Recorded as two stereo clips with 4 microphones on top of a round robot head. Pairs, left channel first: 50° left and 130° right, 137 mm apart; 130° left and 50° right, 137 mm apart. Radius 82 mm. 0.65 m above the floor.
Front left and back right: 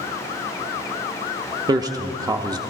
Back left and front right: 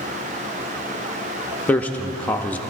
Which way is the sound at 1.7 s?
160° right.